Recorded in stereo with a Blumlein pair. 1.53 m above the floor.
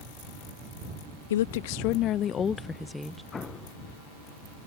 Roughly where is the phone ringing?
No phone ringing in this recording.